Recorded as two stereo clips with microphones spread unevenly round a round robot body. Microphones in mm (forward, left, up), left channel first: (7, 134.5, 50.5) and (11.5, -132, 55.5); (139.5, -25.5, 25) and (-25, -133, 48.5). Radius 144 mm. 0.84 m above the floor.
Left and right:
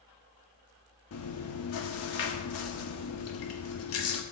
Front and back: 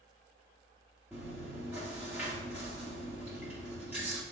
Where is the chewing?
130° left, 0.8 m.